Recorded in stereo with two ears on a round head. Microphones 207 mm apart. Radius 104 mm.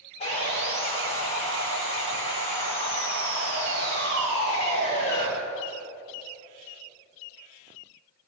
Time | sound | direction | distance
0.2 | sawing | 30° left (ahead or behind) | 6.5 m